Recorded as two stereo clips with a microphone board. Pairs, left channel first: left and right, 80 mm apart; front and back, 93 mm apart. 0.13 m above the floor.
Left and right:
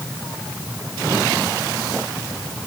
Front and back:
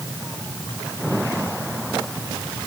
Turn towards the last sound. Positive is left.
No sound to turn to.